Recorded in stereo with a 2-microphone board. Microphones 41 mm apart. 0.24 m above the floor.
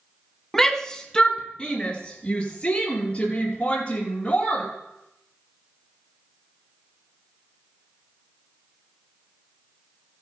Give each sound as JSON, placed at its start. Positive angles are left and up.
{"t": 0.5, "sound": "a shout", "side_deg": 10, "distance_m": 1.6}